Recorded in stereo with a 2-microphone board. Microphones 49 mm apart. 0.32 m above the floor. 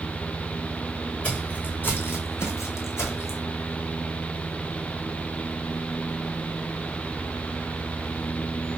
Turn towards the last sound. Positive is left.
turn(degrees=75)  # may be behind; listen again after turning